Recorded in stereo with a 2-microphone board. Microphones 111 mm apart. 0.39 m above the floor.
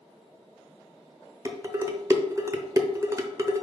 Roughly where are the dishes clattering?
Right.